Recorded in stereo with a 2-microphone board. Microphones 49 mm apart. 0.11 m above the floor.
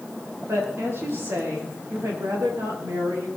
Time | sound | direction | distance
0.5 | a woman speaking | 65° right (ahead or behind) | 9.5 m